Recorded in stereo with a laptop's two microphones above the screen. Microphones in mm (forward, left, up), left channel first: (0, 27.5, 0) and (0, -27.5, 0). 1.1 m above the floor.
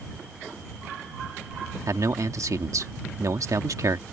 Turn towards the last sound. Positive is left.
turn(degrees=-75)  # may be behind; listen again after turning